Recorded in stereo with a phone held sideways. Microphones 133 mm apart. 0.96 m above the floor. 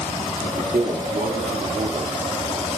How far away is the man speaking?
About 2.5 m.